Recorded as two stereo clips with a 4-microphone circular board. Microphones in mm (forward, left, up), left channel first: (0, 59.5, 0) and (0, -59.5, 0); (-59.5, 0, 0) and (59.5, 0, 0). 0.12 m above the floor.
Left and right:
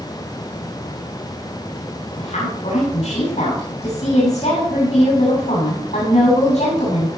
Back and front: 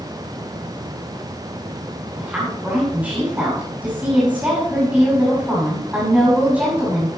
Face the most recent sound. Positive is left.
turn(degrees=75)